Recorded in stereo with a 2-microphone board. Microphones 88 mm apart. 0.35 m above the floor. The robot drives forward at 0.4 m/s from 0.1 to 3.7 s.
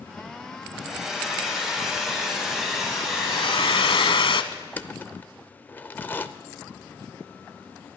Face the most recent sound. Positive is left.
turn(degrees=20)  # may be behind; listen again after turning